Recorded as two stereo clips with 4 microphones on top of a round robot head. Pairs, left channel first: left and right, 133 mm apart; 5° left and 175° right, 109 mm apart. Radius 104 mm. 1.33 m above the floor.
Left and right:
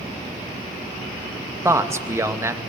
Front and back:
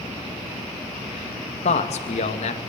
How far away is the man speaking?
About 2.5 m.